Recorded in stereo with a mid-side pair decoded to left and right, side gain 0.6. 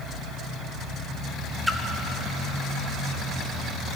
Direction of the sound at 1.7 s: 5° left.